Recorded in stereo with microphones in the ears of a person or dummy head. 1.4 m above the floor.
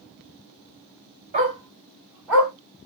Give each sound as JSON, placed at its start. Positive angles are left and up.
{"t": 1.3, "sound": "a dog barking", "side_deg": -35, "distance_m": 1.4}